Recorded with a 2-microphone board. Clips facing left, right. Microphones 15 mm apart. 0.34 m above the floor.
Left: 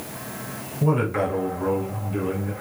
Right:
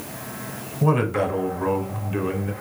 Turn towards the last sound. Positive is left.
turn(degrees=-35)  # may be behind; listen again after turning